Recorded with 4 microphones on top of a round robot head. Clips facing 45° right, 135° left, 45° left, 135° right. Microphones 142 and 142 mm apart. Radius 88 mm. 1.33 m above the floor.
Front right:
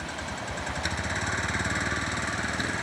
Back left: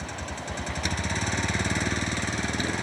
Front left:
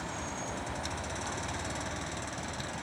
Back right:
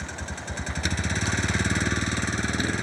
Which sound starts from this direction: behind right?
A vehicle, at 0.0 s.